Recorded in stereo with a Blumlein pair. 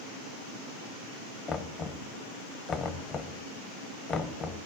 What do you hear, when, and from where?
1.5 s knocking: 20° left, 0.9 m